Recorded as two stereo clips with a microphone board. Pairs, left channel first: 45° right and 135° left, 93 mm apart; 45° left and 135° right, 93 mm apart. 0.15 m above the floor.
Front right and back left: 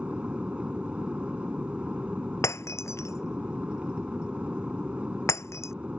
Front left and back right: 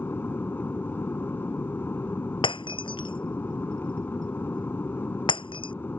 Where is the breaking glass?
15° left.